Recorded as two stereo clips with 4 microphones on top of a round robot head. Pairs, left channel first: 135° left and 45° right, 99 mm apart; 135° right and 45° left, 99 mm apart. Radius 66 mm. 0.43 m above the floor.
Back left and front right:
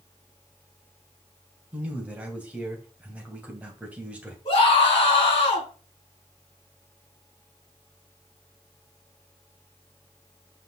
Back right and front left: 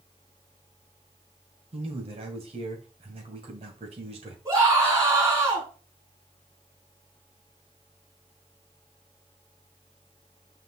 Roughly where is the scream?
Left.